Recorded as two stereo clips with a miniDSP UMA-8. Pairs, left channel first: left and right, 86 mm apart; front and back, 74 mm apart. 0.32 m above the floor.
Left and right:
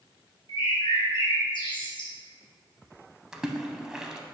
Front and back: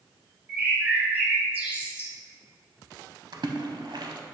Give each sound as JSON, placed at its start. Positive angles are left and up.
{"t": 0.5, "sound": "a bird", "azimuth_deg": 115, "distance_m": 2.0}
{"t": 3.3, "sound": "a splash", "azimuth_deg": -170, "distance_m": 0.7}